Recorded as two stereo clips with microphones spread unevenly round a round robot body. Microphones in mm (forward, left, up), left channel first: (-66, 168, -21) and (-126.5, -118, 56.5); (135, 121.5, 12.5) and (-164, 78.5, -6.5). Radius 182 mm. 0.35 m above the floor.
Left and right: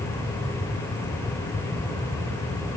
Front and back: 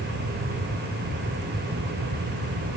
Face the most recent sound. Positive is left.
No sound to turn to.